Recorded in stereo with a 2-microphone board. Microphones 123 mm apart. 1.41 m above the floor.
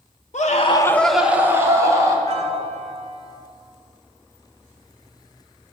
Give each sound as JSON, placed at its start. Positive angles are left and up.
{"t": 0.3, "sound": "a scream", "side_deg": 75, "distance_m": 0.7}
{"t": 2.3, "sound": "a piano", "side_deg": -55, "distance_m": 1.5}